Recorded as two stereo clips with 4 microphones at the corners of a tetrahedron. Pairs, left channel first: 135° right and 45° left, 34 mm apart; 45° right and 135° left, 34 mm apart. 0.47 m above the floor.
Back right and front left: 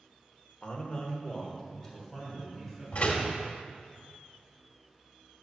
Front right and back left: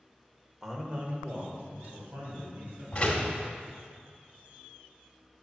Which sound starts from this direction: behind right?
A man speaking, at 0.6 s.